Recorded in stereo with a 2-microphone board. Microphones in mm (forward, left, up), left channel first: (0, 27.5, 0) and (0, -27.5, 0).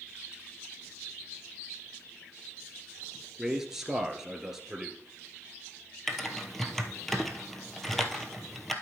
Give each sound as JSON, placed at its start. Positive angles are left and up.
{"t": 3.4, "sound": "a man speaking", "side_deg": -10, "distance_m": 1.5}
{"t": 6.1, "sound": "typing on a keyboard", "side_deg": 5, "distance_m": 1.0}